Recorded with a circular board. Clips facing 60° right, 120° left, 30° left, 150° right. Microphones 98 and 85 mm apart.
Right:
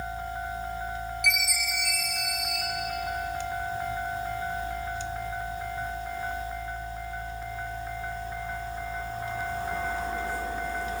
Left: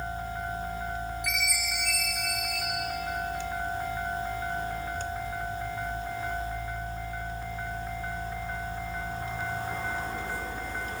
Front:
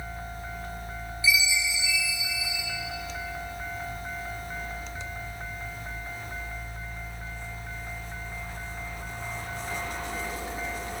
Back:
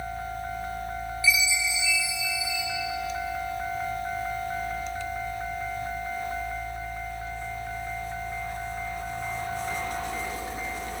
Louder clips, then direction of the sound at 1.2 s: Right 2 dB, front 1 dB; 40° right.